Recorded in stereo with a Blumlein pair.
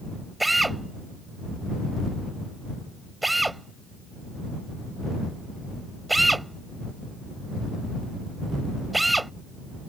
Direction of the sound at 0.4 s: 5° right.